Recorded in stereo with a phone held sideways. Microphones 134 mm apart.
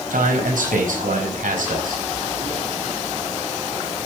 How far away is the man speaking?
About 4.5 m.